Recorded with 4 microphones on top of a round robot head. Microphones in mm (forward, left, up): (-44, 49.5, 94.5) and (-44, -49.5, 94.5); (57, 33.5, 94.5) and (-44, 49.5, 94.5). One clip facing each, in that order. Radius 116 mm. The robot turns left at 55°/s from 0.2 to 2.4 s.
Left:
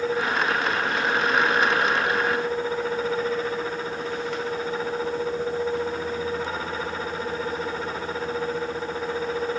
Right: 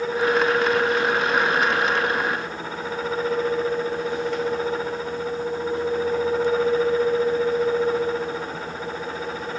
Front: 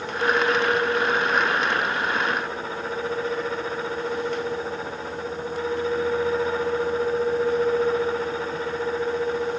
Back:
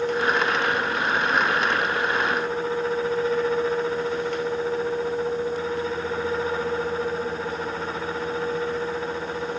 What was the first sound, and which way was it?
Only background noise.